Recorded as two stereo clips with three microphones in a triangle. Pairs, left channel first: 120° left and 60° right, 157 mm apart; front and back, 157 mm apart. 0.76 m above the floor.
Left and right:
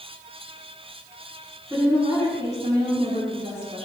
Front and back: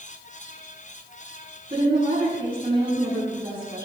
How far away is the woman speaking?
About 6 m.